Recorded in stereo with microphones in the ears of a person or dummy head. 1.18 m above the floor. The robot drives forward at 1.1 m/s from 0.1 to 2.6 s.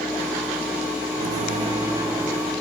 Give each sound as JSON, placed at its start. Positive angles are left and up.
{"t": 1.2, "sound": "a microwave", "side_deg": -50, "distance_m": 0.5}